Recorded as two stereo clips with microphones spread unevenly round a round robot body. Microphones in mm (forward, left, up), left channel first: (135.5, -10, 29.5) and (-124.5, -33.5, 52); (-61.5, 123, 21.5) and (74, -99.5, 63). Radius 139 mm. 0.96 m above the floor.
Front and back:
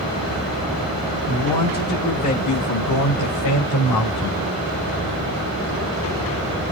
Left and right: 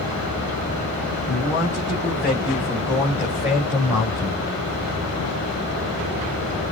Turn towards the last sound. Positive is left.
turn(degrees=25)